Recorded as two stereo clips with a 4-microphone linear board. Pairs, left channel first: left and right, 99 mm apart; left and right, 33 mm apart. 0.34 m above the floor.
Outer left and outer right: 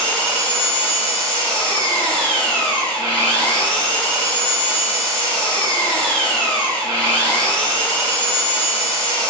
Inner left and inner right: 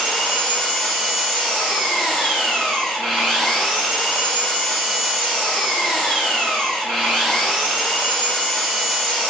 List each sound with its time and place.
0.0 s an engine running: 10° left (ahead or behind), 1.4 m